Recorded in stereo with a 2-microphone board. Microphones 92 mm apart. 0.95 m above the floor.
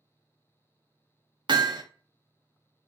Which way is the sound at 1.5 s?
55° right (ahead or behind).